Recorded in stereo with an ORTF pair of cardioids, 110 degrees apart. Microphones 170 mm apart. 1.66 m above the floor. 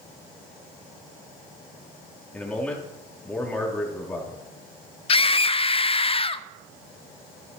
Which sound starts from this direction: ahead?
A man speaking, at 2.3 s.